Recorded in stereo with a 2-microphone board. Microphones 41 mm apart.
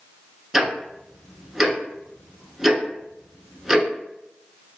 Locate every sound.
0.5 s ticking: 5° right (ahead or behind), 0.6 m